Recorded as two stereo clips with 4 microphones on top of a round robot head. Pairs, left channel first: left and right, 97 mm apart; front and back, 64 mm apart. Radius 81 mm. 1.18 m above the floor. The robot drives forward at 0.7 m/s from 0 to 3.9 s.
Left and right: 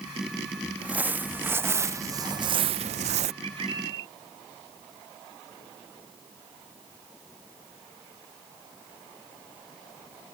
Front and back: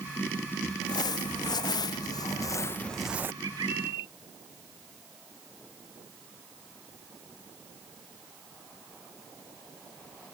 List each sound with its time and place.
0.8 s crumpling: 15° right; by 3.3 s 115° right
3.4 s a bird: 135° right; by 4.1 s 140° right